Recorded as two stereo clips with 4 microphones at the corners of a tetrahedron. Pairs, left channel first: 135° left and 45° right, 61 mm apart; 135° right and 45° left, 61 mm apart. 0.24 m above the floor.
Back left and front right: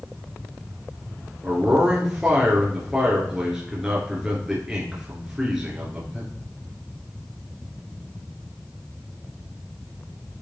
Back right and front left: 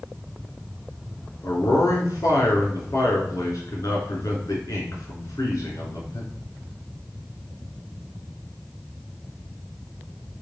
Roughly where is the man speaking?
Behind right.